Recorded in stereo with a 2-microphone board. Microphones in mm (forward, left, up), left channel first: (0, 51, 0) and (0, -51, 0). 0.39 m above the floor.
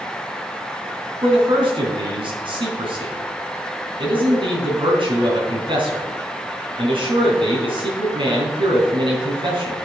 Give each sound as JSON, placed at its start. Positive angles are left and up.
{"t": 1.2, "sound": "a man speaking", "side_deg": -55, "distance_m": 3.0}